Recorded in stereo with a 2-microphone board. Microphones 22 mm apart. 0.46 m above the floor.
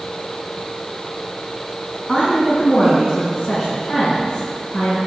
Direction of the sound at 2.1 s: 75° left (ahead or behind).